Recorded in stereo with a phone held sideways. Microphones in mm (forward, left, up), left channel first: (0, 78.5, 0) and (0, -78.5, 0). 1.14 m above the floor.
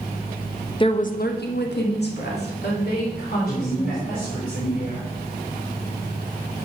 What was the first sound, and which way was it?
A woman speaking, 30° left (ahead or behind).